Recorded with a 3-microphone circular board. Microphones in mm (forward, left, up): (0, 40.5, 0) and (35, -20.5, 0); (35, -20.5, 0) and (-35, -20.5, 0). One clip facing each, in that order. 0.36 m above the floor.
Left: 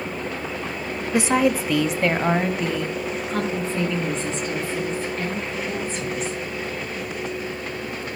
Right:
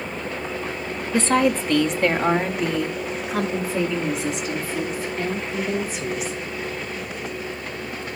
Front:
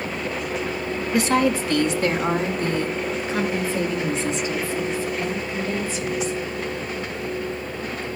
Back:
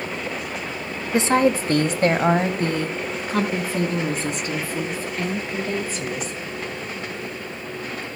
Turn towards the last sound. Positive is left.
turn(degrees=-140)